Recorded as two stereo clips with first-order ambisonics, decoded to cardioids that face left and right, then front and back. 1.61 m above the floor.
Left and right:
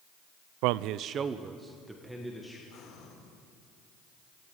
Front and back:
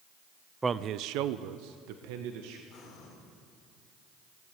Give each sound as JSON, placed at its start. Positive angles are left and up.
{"t": 0.6, "sound": "a man speaking", "azimuth_deg": -100, "distance_m": 0.6}
{"t": 2.7, "sound": "breathing", "azimuth_deg": 60, "distance_m": 5.5}